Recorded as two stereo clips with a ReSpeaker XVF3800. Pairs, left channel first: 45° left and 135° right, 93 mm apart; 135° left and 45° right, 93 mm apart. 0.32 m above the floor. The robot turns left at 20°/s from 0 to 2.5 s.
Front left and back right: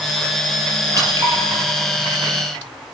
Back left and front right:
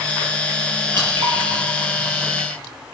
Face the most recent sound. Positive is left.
turn(degrees=-115)